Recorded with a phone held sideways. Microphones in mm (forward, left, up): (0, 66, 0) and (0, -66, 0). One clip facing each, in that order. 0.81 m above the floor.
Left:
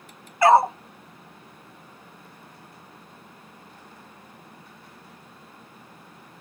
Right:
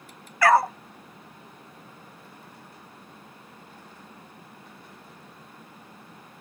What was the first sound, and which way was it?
A dog barking, 25° left (ahead or behind).